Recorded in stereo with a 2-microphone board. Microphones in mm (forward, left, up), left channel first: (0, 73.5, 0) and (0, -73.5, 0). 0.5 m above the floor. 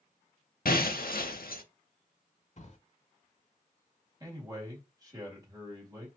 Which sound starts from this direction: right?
A man speaking, at 4.2 s.